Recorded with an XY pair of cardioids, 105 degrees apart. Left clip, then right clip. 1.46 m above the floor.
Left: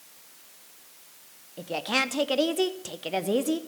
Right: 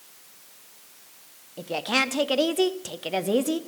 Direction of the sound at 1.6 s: 5° right.